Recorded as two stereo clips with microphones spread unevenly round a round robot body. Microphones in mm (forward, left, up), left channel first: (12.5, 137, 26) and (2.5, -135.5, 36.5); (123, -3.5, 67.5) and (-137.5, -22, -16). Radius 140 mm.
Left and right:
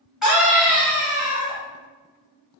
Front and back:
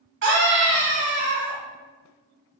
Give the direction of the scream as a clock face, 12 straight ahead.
6 o'clock.